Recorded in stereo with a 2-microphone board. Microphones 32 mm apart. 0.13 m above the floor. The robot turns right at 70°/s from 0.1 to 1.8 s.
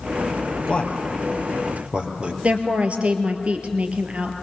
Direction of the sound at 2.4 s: 40° right (ahead or behind).